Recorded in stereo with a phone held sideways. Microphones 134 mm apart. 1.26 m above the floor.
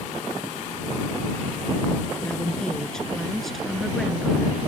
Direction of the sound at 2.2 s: 5° left (ahead or behind).